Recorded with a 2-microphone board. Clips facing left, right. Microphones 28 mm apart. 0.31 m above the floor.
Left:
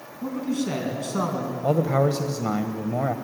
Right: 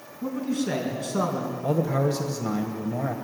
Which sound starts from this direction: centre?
A man speaking, at 0.2 s.